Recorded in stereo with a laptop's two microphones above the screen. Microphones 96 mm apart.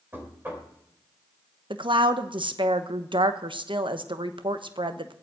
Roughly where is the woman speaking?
Right.